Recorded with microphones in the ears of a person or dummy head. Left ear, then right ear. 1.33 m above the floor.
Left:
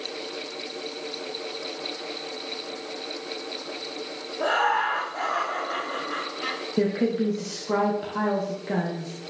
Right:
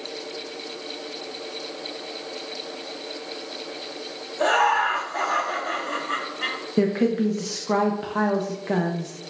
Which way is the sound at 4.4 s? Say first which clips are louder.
Right 3 dB; 80° right.